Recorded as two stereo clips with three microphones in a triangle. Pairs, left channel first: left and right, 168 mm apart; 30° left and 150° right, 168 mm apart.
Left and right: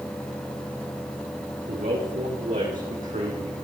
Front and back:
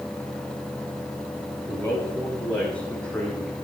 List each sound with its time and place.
1.7 s a man speaking: 50° right, 6.5 m; by 3.5 s 55° right, 4.5 m